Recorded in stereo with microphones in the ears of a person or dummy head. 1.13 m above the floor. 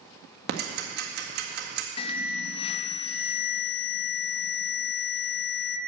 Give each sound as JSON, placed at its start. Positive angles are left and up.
{"t": 0.5, "sound": "ticking", "side_deg": -55, "distance_m": 1.3}
{"t": 2.0, "sound": "an alarm", "side_deg": 35, "distance_m": 0.8}